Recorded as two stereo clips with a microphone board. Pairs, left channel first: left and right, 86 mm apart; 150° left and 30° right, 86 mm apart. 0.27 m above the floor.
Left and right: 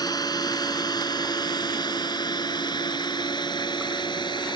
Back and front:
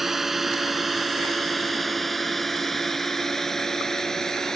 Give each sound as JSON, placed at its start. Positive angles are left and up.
{"t": 0.0, "sound": "a drone", "azimuth_deg": 55}